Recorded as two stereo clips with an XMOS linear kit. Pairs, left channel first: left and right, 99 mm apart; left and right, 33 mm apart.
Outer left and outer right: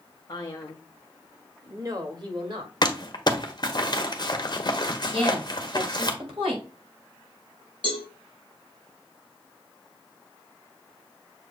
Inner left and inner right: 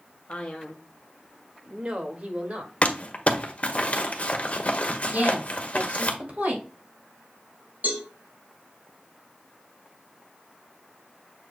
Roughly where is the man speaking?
Left.